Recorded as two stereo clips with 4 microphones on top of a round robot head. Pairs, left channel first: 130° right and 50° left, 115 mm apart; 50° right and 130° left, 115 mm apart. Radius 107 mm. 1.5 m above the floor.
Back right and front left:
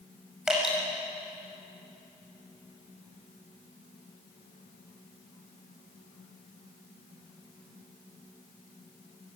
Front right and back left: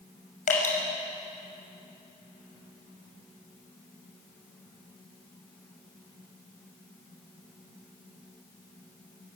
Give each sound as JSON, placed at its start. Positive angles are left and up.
{"t": 0.5, "sound": "dripping", "azimuth_deg": -35, "distance_m": 5.5}